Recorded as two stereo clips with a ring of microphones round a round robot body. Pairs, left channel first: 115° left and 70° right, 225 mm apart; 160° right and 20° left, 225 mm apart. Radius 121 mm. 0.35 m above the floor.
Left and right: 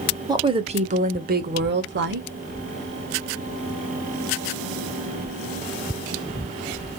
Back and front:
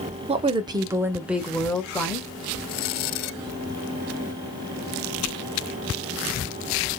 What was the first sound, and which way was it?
A woman speaking, 10° right.